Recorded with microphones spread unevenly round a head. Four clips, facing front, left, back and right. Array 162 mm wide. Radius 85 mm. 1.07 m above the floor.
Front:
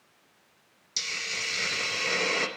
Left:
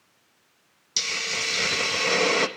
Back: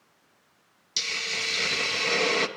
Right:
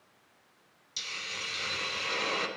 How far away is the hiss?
About 0.6 m.